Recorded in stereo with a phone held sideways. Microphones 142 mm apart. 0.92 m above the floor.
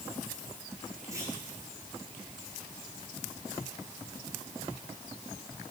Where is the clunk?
20° right (ahead or behind), 9 m.